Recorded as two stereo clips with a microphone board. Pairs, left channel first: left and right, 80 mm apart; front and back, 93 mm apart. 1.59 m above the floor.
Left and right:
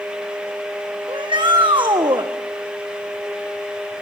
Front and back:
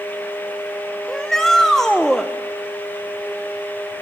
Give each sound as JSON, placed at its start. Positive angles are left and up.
{"t": 1.1, "sound": "a shout", "azimuth_deg": -85, "distance_m": 1.4}